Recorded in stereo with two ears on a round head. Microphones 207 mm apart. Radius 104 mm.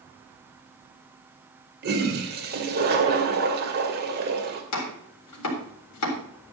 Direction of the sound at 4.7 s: 85° left.